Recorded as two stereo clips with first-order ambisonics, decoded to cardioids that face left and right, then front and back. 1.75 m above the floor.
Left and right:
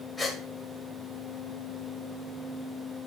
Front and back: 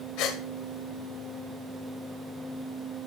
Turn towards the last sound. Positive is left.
turn(degrees=15)